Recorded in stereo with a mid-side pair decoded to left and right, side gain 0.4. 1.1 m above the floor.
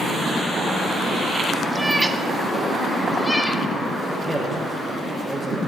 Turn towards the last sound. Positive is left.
turn(degrees=-20)